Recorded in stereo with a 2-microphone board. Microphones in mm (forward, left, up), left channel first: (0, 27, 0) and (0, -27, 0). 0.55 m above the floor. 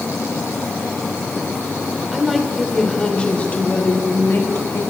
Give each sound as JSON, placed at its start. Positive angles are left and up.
{"t": 2.1, "sound": "a woman speaking", "side_deg": -5, "distance_m": 2.0}